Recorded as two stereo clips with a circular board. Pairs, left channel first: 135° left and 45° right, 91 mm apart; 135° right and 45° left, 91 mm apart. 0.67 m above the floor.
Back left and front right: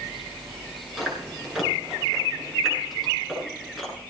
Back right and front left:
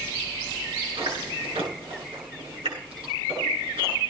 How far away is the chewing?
About 9.5 m.